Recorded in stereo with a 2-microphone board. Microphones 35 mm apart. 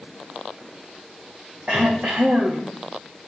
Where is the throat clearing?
55° right (ahead or behind), 2.5 m.